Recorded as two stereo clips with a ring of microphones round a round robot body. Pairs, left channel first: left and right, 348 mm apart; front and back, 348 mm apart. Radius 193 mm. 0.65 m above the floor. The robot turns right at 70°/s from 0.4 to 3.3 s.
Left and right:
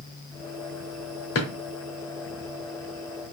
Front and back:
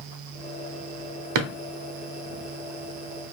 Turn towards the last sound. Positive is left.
turn(degrees=-75)